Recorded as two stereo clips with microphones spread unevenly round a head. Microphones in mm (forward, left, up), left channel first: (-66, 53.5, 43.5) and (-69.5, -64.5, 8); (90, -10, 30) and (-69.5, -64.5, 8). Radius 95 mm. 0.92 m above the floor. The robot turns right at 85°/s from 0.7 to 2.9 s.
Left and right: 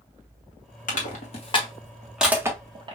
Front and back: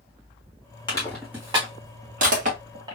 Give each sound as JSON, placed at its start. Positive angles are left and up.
{"t": 0.9, "sound": "crushing", "azimuth_deg": 85, "distance_m": 1.5}